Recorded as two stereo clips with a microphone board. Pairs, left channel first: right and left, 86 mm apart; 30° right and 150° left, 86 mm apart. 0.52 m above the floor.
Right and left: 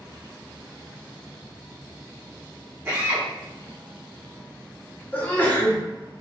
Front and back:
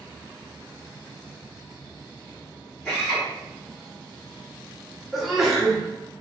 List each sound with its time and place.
2.9 s a drill: 35° left, 1.8 m
5.1 s a sneeze: 125° right, 0.9 m